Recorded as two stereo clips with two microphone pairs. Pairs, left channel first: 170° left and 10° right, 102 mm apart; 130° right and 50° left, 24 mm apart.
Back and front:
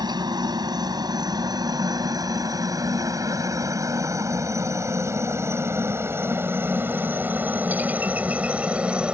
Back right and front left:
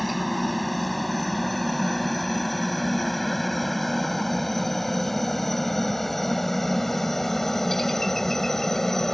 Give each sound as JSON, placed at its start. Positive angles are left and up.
{"t": 0.0, "sound": "a helicopter", "azimuth_deg": -40}